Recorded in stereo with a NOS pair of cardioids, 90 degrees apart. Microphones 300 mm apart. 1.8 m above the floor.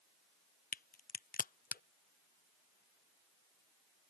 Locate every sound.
0.7 s a crack: 30° left